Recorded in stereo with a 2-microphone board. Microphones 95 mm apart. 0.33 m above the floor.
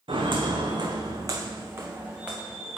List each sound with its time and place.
0.1 s footsteps: 70° right (ahead or behind), 1.2 m; by 2.8 s 5° right (ahead or behind), 1.5 m